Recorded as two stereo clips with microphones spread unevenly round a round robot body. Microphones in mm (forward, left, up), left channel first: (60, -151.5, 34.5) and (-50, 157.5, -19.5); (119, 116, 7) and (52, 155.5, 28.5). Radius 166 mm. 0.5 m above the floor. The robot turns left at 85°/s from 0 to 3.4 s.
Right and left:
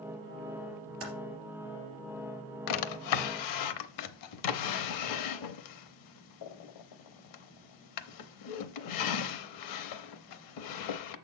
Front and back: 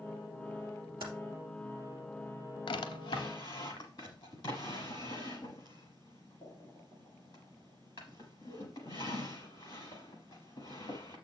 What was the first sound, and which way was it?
Typing on a keyboard, 165° left.